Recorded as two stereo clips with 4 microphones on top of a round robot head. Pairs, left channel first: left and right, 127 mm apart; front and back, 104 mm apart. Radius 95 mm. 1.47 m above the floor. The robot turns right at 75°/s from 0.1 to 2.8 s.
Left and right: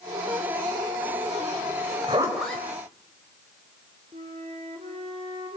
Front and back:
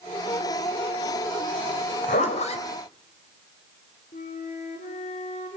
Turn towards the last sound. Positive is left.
turn(degrees=-30)